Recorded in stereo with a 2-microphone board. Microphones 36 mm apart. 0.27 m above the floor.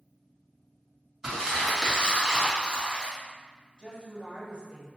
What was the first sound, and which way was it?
Crumpling, 15° right (ahead or behind).